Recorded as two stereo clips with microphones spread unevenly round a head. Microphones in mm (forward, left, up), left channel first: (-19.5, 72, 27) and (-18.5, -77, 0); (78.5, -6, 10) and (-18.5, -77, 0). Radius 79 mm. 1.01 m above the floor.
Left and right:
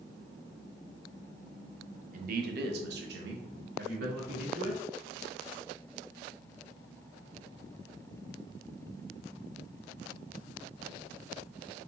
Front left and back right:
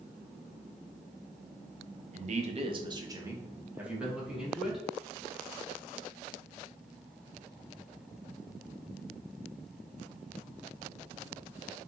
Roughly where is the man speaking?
Behind right.